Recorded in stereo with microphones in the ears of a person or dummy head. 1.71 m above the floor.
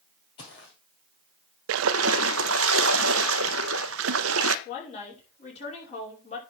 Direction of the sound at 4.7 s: 35° left (ahead or behind).